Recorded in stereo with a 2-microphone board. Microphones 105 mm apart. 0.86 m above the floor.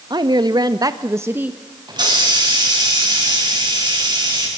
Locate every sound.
0.1 s a woman speaking: 45° right (ahead or behind), 1.1 m; by 1.6 s 15° right (ahead or behind), 1.0 m
1.9 s a hiss: 45° right (ahead or behind), 6.5 m